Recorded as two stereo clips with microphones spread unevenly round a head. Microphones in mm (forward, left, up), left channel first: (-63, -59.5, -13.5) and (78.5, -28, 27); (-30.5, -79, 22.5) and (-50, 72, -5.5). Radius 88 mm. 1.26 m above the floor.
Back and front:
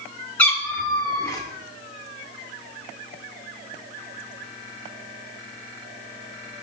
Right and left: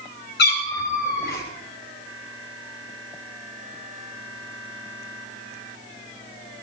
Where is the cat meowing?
85° right, 6 m; by 1.4 s 100° right, 5 m.